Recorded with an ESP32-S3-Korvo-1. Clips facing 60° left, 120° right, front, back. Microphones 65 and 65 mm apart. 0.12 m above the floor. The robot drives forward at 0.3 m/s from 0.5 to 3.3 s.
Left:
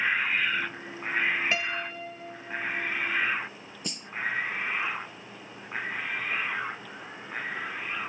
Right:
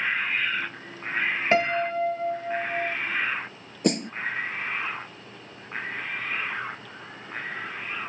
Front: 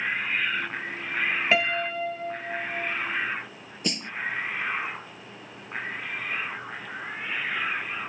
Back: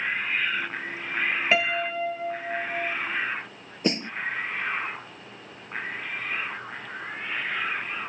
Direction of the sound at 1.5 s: 90° right.